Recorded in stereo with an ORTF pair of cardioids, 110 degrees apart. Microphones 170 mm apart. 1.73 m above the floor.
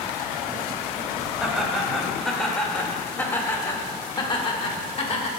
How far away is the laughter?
About 3 m.